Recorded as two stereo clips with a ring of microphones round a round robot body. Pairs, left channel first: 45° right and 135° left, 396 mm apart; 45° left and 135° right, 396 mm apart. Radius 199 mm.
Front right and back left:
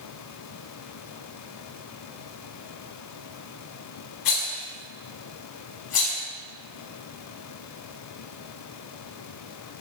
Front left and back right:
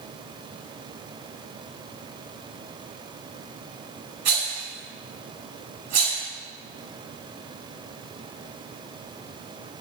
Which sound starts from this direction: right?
A rattle, at 4.2 s.